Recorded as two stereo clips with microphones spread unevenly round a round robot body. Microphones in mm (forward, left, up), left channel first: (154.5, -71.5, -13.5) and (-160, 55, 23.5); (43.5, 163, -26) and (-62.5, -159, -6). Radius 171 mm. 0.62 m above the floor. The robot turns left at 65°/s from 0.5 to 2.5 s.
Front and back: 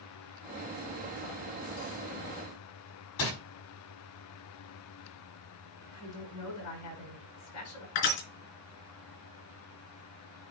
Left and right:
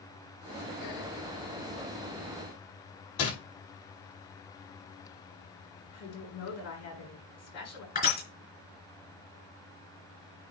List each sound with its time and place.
3.2 s crumpling: 25° left, 5.5 m
5.9 s a woman speaking: 25° left, 5.5 m
8.0 s crushing: 5° left, 3.5 m